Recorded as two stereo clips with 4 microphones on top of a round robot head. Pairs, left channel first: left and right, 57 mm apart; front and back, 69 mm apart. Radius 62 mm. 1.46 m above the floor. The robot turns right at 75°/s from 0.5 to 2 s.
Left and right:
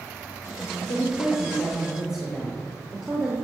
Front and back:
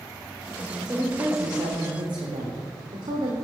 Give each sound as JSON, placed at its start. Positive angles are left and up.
{"t": 0.8, "sound": "a woman speaking", "azimuth_deg": 100, "distance_m": 1.1}